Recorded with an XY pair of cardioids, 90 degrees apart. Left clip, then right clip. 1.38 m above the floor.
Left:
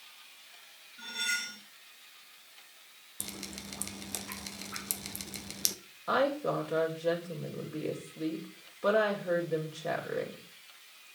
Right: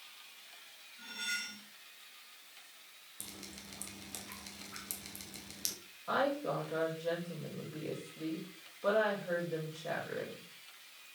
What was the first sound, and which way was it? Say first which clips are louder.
Cutlery clinking: left 6 dB; 70° left.